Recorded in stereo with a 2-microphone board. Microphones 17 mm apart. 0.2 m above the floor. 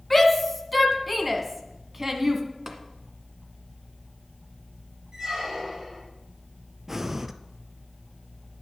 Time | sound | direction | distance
0.1 | a shout | 10° left (ahead or behind) | 2 m
2.7 | tapping | 25° right (ahead or behind) | 1.7 m
5.1 | a squeak | 45° right (ahead or behind) | 4.5 m
6.9 | breathing | 20° right (ahead or behind) | 0.6 m